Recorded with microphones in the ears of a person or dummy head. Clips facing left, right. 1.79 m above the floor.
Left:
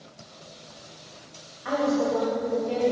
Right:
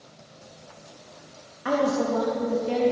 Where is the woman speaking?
55° right (ahead or behind), 2 m.